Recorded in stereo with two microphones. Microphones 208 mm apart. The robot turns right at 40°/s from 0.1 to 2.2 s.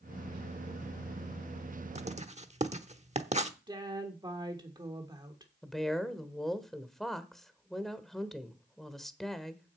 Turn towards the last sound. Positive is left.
turn(degrees=0)  # may be behind; listen again after turning